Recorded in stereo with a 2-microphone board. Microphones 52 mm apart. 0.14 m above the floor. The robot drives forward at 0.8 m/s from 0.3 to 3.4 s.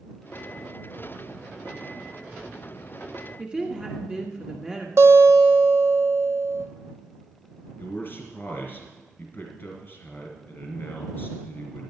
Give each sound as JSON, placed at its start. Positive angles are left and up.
{"t": 3.4, "sound": "a woman speaking", "side_deg": -20, "distance_m": 1.6}
{"t": 5.0, "sound": "a guitar", "side_deg": -60, "distance_m": 1.1}
{"t": 7.8, "sound": "a man speaking", "side_deg": 40, "distance_m": 2.5}